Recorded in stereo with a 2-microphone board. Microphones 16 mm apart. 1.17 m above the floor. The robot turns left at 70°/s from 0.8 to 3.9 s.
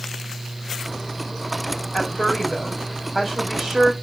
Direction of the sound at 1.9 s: 75° left.